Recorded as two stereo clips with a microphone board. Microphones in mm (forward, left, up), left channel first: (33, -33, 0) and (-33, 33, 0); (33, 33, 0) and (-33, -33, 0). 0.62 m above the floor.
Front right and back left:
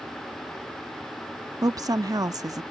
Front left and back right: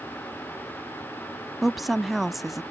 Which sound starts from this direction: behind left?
A woman speaking, at 1.6 s.